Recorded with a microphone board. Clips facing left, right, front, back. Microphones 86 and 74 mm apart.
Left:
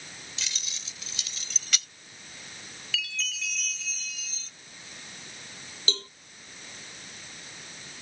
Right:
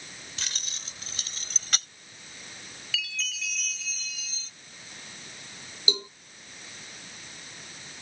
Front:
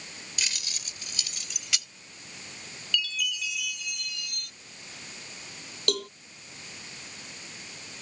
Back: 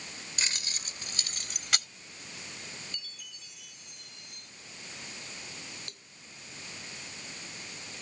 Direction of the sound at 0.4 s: 125° right.